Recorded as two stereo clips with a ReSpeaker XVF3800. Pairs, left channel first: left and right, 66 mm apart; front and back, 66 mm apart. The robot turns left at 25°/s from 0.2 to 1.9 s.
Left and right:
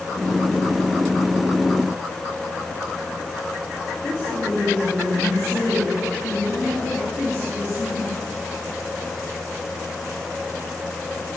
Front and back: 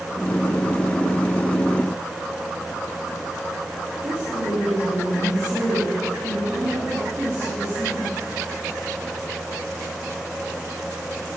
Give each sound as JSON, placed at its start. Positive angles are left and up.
{"t": 4.0, "sound": "a woman speaking", "azimuth_deg": 140, "distance_m": 2.5}